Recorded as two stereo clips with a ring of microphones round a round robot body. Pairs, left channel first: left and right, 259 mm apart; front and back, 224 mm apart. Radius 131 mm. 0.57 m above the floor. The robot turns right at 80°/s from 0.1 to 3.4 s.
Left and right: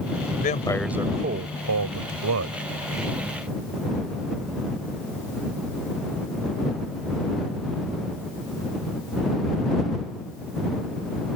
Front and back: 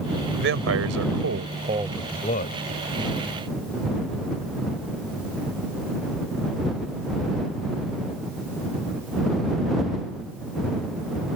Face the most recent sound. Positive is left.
turn(degrees=25)